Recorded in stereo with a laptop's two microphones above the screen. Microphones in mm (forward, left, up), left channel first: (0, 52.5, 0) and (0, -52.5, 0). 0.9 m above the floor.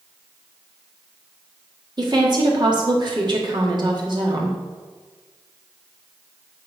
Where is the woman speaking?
50° right (ahead or behind), 2.0 m.